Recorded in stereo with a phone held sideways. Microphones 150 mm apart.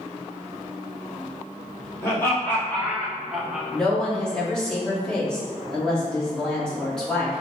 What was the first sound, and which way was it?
Laughter, 20° left (ahead or behind).